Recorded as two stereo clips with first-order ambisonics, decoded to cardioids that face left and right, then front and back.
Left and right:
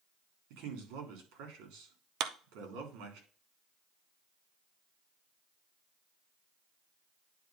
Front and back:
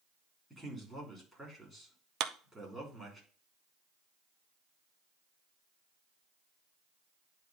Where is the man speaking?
95° right, 3.5 m.